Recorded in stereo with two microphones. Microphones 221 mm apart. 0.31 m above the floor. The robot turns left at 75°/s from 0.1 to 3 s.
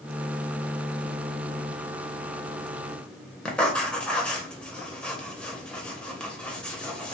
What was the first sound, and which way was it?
Writing, 5° left (ahead or behind).